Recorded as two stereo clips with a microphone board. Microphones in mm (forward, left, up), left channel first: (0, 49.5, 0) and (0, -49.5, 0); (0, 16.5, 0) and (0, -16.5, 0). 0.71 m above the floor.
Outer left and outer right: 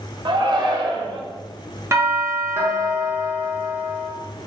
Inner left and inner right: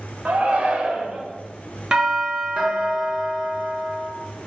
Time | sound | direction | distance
0.2 | a shout | 50° right (ahead or behind) | 1.2 m
1.9 | a doorbell | 30° right (ahead or behind) | 1.3 m